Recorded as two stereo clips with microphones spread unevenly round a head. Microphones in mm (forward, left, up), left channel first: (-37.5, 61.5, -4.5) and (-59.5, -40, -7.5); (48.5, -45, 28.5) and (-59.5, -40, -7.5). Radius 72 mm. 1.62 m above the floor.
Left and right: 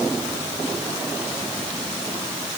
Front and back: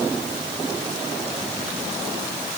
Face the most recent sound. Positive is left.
No sound to turn to.